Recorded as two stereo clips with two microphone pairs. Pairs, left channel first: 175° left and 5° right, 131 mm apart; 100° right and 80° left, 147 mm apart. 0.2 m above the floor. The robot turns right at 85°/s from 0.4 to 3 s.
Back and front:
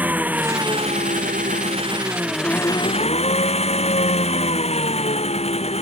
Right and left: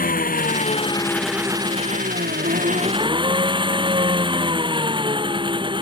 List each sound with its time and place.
0.0 s an engine running: 85° right; by 5.8 s 135° left